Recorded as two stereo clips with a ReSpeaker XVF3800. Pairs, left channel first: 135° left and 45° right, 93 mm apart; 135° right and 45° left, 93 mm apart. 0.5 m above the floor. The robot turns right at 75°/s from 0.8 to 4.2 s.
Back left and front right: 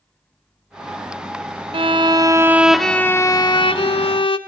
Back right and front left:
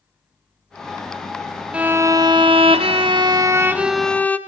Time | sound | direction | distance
1.7 | a violin | 30° right | 0.9 m